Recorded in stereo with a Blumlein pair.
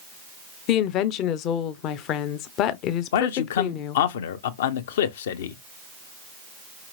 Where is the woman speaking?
35° left, 0.6 m.